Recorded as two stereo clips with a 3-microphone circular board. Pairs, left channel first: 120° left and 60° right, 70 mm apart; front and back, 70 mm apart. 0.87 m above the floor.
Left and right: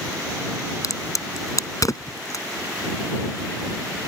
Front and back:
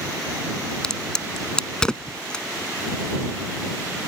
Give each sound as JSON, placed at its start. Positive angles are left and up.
{"t": 0.8, "sound": "a crack", "azimuth_deg": 80}